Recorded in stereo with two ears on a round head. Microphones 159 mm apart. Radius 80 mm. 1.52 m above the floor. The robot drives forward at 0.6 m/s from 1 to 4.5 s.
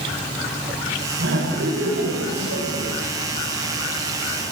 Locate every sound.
1.2 s laughter: 75° right (ahead or behind), 5 m; by 2.9 s 65° right (ahead or behind), 5.5 m